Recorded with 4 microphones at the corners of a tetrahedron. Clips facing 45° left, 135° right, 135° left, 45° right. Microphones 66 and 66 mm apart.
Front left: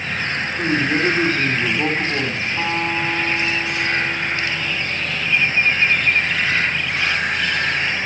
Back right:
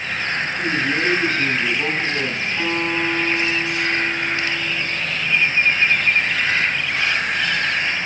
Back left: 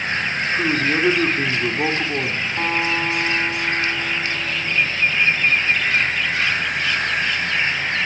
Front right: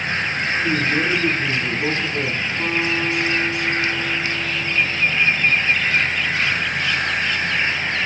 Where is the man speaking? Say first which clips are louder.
Front left 4 dB, back left 1 dB; 115° left, 6 m.